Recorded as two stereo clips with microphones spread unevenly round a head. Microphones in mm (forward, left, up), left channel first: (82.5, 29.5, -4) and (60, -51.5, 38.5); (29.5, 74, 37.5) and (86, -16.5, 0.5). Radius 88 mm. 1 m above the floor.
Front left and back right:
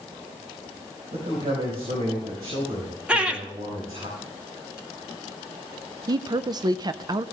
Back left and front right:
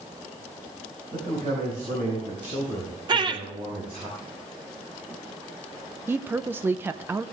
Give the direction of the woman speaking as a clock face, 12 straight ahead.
2 o'clock.